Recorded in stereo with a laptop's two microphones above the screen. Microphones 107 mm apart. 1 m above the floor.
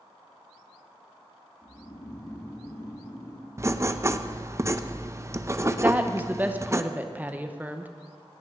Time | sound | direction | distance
1.6 | snoring | 30° left (ahead or behind) | 1.9 m
3.6 | writing | 25° right (ahead or behind) | 0.5 m
5.8 | a woman speaking | 15° right (ahead or behind) | 0.8 m